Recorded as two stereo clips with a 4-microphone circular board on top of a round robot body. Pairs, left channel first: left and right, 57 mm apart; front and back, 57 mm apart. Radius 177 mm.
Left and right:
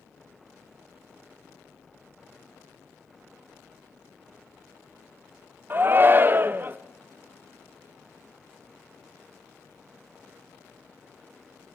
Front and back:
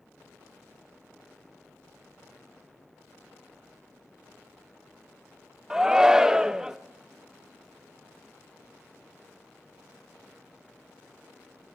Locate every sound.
5.7 s a shout: 105° right, 0.7 m